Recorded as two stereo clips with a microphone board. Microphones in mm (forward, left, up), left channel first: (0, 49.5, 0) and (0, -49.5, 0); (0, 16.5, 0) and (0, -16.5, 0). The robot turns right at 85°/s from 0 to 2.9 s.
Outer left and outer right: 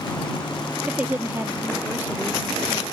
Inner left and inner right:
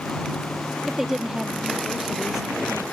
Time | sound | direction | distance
0.9 | a woman speaking | 10° right (ahead or behind) | ?